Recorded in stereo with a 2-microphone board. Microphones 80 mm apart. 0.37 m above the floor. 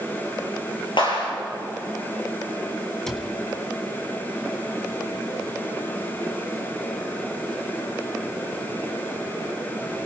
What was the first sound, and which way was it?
A clap, 75° left (ahead or behind).